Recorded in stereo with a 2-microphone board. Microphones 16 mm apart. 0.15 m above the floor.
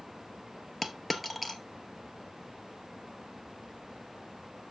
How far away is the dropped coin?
About 0.8 m.